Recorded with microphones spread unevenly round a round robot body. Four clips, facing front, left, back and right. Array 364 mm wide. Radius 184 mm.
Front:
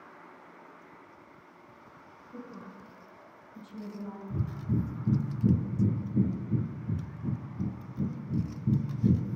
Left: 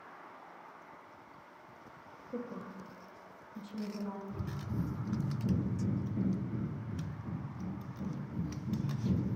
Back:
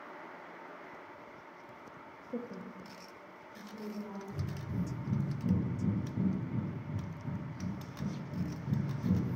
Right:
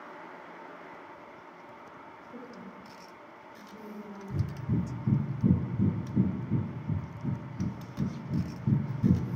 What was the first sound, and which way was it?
A woman speaking, 145° left.